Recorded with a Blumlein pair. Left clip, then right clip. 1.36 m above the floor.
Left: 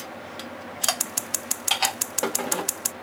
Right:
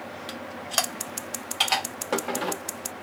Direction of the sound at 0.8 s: 65° left.